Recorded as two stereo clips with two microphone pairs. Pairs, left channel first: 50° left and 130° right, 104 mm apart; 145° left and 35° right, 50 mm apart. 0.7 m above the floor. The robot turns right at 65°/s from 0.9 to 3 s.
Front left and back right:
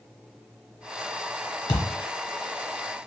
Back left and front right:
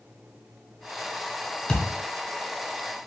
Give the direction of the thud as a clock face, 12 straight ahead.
9 o'clock.